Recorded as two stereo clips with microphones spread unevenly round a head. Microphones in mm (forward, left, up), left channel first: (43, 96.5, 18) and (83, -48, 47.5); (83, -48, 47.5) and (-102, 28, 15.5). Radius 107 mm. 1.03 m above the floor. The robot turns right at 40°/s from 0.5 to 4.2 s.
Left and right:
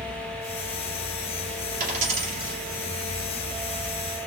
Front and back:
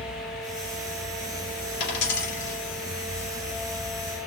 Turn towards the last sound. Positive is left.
turn(degrees=35)